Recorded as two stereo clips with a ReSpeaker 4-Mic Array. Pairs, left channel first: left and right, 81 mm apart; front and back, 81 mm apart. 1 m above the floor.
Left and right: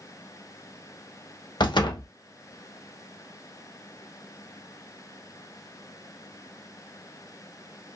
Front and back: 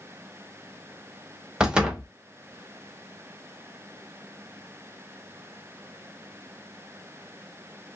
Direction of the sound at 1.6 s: 100° left.